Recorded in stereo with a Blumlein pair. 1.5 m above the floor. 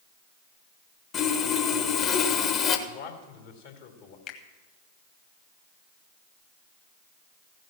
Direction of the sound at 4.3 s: 30° left.